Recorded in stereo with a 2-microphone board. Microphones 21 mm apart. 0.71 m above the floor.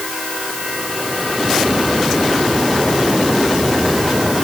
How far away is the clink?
No clink in this recording.